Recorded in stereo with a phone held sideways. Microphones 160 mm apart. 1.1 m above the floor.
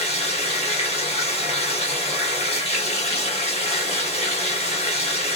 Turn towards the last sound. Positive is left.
turn(degrees=40)  # may be behind; listen again after turning